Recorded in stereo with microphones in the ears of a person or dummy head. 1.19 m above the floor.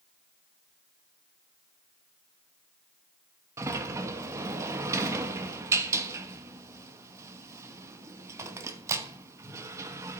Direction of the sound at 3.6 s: 15° right (ahead or behind).